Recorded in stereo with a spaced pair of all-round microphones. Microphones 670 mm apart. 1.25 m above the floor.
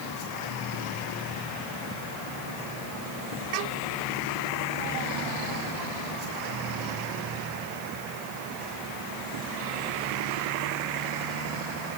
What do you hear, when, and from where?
Only background noise.